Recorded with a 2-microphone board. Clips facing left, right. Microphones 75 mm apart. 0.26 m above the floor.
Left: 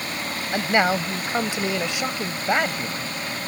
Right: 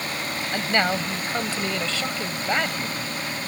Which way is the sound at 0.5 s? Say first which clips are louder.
Left 3 dB; 15° left (ahead or behind).